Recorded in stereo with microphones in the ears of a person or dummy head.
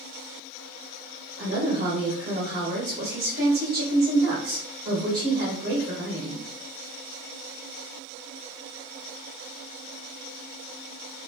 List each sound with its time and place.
1.4 s a woman speaking: 70° right (ahead or behind), 2 m